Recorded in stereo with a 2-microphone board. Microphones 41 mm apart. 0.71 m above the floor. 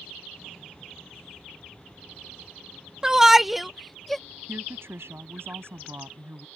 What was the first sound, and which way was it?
A shout, 15° right (ahead or behind).